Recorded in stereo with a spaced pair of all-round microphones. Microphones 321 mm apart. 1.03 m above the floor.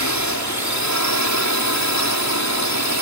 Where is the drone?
60° left (ahead or behind).